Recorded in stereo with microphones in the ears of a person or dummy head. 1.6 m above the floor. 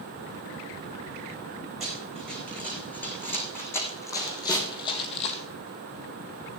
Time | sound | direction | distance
1.8 | running footsteps | centre (ahead or behind) | 6 m
4.5 | a snare drum | 15° left (ahead or behind) | 3.5 m